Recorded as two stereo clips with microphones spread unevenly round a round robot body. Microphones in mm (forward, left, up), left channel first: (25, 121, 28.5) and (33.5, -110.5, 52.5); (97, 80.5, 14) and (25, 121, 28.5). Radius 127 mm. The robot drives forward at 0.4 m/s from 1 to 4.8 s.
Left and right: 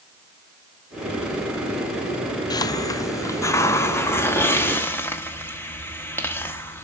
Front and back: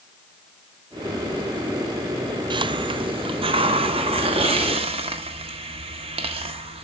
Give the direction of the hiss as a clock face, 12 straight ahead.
7 o'clock.